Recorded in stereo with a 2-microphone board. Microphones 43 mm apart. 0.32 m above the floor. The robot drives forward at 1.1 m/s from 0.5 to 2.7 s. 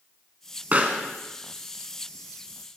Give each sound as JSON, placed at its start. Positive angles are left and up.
{"t": 0.7, "sound": "a pop", "side_deg": -35, "distance_m": 1.4}